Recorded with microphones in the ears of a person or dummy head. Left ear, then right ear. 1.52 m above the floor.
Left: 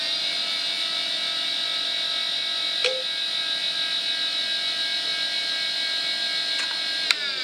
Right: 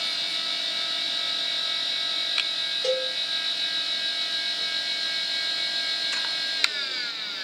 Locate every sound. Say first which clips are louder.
2.8 s a cowbell: right 1 dB; 10° right (ahead or behind), 0.6 m